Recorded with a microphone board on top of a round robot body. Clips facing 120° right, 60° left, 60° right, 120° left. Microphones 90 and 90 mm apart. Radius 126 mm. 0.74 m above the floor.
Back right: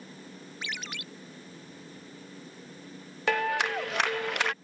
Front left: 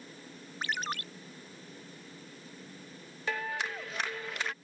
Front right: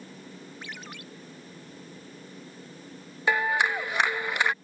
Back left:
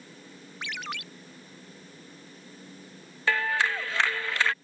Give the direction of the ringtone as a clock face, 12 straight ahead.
8 o'clock.